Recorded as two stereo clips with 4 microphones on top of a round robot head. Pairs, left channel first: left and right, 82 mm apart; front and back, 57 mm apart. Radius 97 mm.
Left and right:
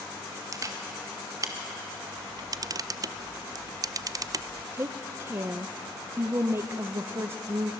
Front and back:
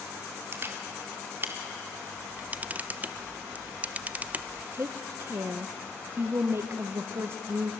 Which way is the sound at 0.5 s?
135° right.